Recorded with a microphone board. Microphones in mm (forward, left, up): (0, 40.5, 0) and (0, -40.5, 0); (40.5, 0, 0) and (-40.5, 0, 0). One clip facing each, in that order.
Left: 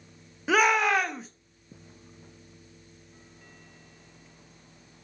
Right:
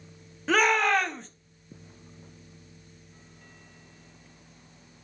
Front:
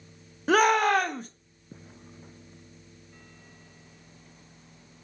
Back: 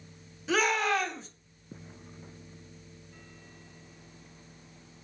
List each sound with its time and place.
0.5 s a shout: 10° left, 1.3 m